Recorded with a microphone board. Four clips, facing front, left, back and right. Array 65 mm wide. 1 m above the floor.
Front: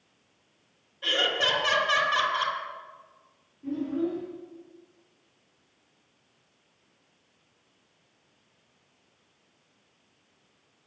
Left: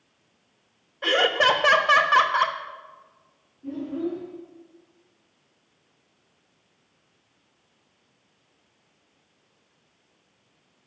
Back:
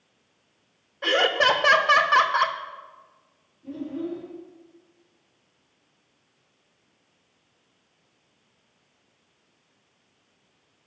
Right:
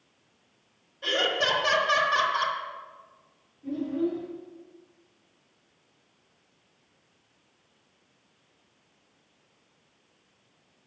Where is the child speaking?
20° left, 6 m.